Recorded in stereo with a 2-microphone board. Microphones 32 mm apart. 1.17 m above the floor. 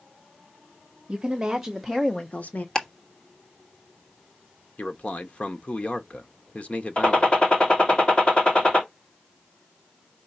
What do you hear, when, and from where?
1.1 s a woman speaking: 30° right (ahead or behind), 1.8 m; by 2.6 s 70° left (ahead or behind), 1.2 m
2.8 s ticking: 20° left (ahead or behind), 1.4 m
4.8 s a man speaking: 45° left (ahead or behind), 1.0 m
7.0 s a gunshot: 35° left (ahead or behind), 2.5 m